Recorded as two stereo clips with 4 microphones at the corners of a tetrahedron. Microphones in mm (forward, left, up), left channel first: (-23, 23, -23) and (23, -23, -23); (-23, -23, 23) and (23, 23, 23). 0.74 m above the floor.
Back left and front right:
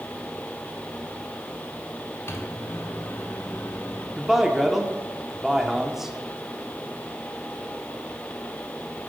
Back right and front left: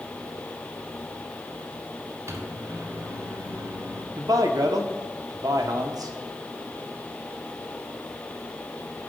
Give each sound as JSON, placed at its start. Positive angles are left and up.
{"t": 2.3, "sound": "a microwave", "azimuth_deg": 90, "distance_m": 1.5}
{"t": 4.2, "sound": "a man speaking", "azimuth_deg": 40, "distance_m": 1.3}